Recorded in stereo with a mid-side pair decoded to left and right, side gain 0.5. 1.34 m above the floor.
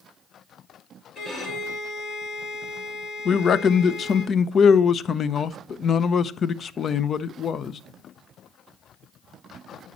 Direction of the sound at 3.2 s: 45° left.